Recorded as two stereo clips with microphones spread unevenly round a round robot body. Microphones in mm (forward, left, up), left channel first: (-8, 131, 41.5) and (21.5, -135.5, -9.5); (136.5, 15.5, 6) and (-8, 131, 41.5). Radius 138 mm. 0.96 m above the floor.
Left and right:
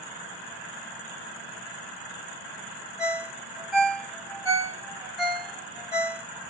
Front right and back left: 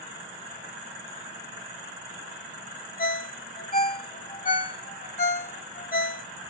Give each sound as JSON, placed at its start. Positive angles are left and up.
{"t": 3.0, "sound": "a ringtone", "azimuth_deg": 10, "distance_m": 1.5}